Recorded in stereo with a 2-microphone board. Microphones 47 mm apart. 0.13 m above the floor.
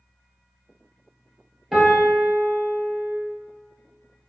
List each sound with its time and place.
1.7 s a piano: 5° right (ahead or behind), 1.3 m